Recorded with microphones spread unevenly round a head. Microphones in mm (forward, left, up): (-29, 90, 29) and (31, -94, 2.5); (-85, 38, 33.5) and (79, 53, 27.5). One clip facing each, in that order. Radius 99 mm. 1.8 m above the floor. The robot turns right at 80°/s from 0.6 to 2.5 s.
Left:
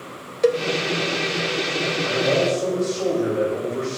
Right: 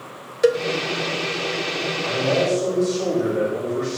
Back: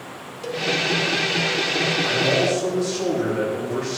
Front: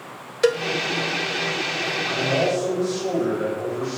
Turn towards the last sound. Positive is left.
turn(degrees=-155)